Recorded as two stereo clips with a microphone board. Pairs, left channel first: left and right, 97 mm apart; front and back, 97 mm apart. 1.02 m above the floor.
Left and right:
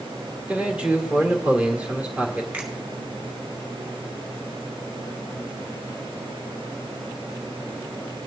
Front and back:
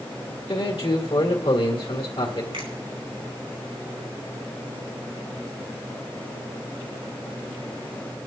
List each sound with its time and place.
0.5 s a man speaking: 10° right, 2 m
2.5 s a finger snap: 160° right, 3.5 m